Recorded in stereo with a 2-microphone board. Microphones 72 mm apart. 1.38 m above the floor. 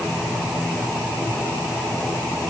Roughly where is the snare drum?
No snare drum in this recording.